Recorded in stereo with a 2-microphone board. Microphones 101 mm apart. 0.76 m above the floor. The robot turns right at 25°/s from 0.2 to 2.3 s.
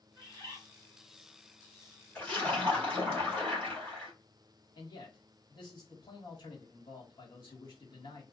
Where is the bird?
35° left (ahead or behind), 1.3 m; by 0.6 s 25° left (ahead or behind), 1.3 m.